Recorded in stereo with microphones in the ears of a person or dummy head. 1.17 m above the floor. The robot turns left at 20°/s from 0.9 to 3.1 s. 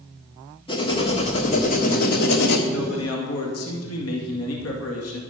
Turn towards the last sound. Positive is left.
turn(degrees=75)  # may be behind; listen again after turning